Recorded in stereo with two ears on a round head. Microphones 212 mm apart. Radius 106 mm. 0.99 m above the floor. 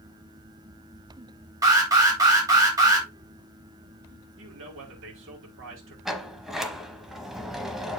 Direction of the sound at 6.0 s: Centre (ahead or behind).